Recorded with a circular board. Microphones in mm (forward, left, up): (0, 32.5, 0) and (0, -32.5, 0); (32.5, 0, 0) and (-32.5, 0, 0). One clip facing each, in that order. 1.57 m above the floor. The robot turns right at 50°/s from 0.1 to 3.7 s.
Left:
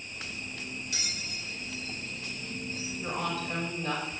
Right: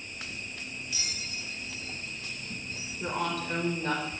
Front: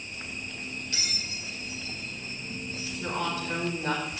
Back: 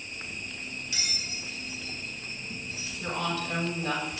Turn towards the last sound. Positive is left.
turn(degrees=-45)